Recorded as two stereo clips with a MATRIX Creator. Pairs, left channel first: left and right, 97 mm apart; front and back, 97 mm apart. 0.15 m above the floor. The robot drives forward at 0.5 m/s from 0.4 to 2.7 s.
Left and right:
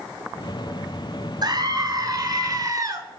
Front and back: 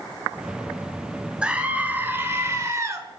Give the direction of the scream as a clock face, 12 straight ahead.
3 o'clock.